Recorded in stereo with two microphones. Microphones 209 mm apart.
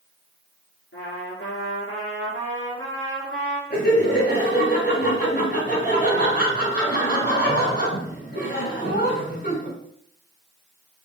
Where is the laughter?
55° left (ahead or behind), 3.5 m.